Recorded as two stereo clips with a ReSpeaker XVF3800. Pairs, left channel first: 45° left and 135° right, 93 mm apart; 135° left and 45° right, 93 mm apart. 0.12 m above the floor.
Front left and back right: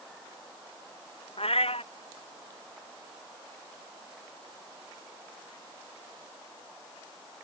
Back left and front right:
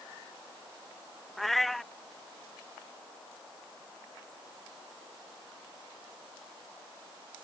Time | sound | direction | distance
1.4 | a cat meowing | 45° left | ?